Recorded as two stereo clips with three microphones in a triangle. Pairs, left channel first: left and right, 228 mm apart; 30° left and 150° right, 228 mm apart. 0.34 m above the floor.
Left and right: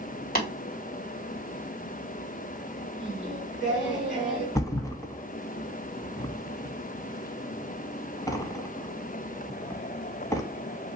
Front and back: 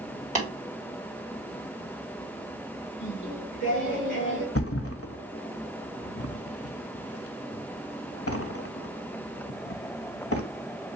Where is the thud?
15° left, 0.7 m.